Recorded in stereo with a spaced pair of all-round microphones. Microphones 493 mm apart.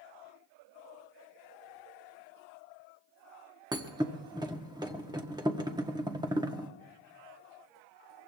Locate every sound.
3.7 s a thud: 10° right (ahead or behind), 1.2 m